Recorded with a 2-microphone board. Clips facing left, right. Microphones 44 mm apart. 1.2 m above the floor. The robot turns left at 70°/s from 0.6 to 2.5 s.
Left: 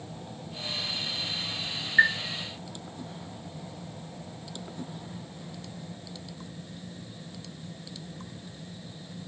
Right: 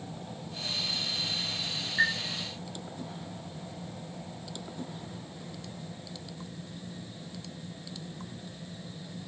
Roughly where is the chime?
Left.